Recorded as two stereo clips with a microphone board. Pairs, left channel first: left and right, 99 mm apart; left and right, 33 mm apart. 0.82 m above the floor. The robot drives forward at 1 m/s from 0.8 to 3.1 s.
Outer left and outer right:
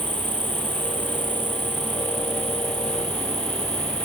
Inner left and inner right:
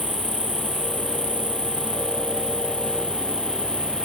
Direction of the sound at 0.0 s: 55° left (ahead or behind).